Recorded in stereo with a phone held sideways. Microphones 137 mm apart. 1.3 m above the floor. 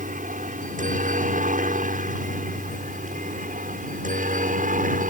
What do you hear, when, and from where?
0.0 s a helicopter: 70° right (ahead or behind); by 5.1 s 75° right (ahead or behind)